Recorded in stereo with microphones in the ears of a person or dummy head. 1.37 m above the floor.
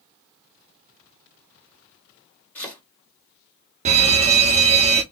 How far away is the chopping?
About 2 m.